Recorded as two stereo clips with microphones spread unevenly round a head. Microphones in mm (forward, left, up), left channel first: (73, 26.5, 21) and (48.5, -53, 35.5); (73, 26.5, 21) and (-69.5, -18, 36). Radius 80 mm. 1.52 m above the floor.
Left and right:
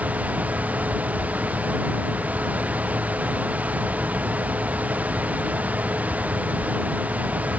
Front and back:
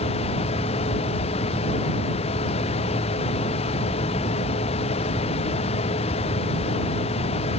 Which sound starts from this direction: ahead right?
A fan, at 0.0 s.